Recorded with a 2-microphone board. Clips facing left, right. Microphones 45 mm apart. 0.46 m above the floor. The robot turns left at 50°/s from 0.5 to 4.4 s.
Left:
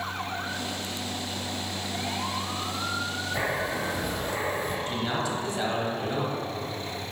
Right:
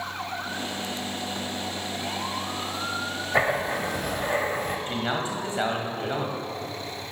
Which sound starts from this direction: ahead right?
Writing, at 3.3 s.